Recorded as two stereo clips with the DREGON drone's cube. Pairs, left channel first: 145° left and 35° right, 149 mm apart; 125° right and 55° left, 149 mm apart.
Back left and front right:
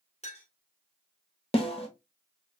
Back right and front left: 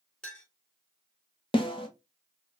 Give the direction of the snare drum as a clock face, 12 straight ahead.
6 o'clock.